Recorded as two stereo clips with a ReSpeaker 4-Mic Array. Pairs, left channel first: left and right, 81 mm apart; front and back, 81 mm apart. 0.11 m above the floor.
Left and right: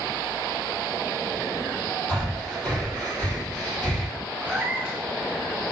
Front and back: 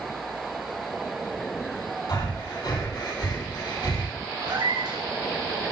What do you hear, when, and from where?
2.1 s breathing: 15° left, 3 m
4.4 s a cat meowing: 160° right, 3 m